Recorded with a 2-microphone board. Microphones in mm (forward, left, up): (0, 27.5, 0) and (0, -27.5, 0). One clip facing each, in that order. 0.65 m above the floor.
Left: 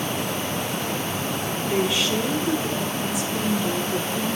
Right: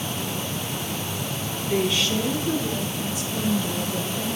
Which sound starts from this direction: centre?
A woman speaking, at 1.6 s.